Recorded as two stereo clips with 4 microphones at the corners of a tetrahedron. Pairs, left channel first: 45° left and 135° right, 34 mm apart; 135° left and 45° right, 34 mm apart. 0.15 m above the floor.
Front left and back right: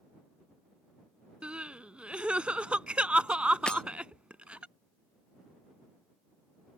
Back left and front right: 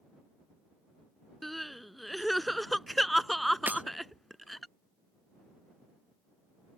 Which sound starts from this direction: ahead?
Breaking glass, at 3.7 s.